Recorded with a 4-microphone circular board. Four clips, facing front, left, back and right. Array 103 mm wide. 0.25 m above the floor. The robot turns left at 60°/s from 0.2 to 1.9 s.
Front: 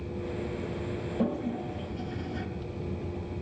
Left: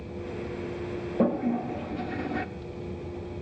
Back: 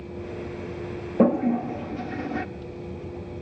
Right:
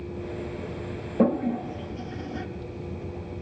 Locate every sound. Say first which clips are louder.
1.2 s a toilet flushing: right 2 dB, back 11 dB; 170° right, 0.5 m; by 2.5 s 150° left, 0.5 m